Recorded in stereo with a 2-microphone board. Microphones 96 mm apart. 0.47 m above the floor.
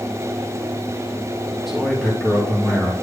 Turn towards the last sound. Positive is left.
turn(degrees=10)  # may be behind; listen again after turning